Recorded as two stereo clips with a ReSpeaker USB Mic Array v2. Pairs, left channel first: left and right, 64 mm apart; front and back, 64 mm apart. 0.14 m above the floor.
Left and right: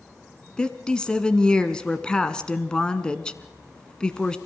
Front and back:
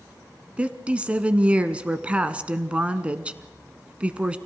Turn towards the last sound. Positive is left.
turn(degrees=145)